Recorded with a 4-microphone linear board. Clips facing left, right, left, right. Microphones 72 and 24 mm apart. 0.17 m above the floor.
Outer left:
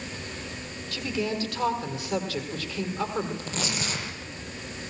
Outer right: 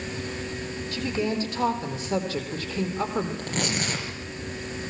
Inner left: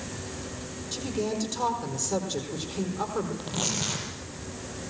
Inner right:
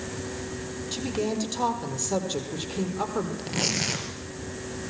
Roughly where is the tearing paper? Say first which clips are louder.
Outer right 3 dB, inner right 3 dB; right.